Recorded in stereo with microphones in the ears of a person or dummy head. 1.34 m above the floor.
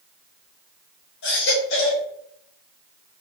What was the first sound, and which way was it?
A baby crying, 70° left (ahead or behind).